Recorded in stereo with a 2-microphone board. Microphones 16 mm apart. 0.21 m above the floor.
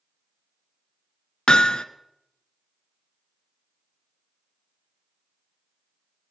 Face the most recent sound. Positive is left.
turn(degrees=70)  # may be behind; listen again after turning